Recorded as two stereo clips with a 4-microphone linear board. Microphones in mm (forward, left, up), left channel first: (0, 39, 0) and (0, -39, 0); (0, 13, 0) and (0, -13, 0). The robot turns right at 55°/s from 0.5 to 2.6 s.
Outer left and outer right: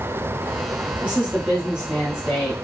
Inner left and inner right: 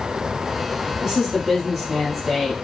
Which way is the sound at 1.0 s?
20° right (ahead or behind).